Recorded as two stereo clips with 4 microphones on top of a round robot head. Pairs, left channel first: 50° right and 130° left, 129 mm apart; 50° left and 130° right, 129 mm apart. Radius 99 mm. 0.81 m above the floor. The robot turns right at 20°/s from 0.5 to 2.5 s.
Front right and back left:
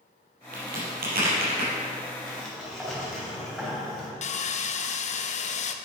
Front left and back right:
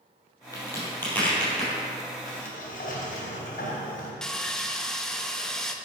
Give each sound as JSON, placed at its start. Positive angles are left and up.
{"t": 0.5, "sound": "a crack", "azimuth_deg": 115, "distance_m": 3.5}
{"t": 2.3, "sound": "a sliding door", "azimuth_deg": 35, "distance_m": 3.0}
{"t": 4.2, "sound": "sawing", "azimuth_deg": -35, "distance_m": 0.7}